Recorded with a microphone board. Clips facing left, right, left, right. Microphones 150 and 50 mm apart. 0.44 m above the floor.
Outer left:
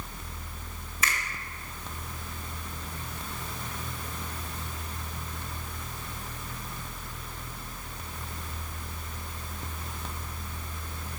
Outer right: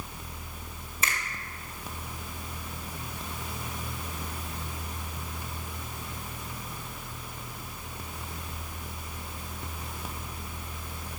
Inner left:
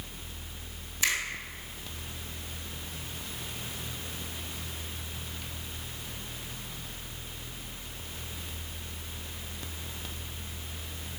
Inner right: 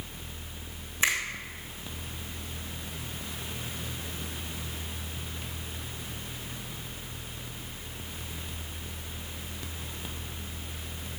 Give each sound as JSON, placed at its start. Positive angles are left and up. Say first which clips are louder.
{"t": 1.0, "sound": "a finger snap", "louder": "outer left 1 dB, inner right 2 dB", "side_deg": -30, "distance_m": 2.0}